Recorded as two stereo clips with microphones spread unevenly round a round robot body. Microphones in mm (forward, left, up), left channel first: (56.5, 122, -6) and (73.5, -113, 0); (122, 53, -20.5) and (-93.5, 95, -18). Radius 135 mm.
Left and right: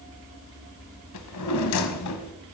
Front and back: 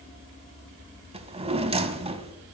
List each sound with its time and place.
1.1 s a drawer: 105° left, 1.0 m